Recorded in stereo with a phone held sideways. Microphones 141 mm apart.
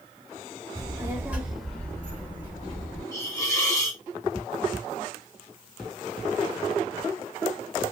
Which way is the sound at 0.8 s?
30° right (ahead or behind).